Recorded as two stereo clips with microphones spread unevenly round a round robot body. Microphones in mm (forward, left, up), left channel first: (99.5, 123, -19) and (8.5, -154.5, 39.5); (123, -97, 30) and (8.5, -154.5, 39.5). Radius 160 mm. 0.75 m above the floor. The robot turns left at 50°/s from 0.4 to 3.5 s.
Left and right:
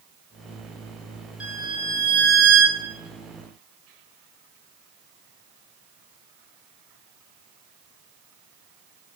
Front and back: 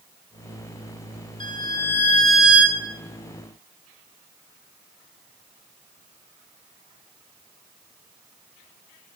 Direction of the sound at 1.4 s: 15° right.